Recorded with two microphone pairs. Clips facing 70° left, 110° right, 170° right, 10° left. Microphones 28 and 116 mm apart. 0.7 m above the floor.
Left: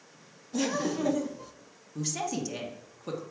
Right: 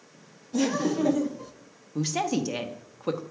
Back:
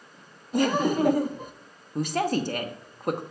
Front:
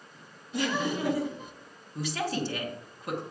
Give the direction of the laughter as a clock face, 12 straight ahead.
6 o'clock.